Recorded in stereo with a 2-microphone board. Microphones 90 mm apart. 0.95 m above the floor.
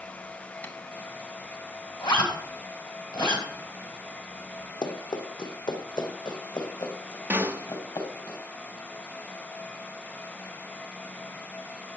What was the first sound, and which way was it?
Tapping, 20° left (ahead or behind).